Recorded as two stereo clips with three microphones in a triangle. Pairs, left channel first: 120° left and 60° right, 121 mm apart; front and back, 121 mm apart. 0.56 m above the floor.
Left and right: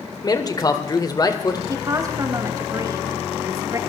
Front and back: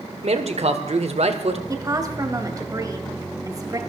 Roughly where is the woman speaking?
Behind right.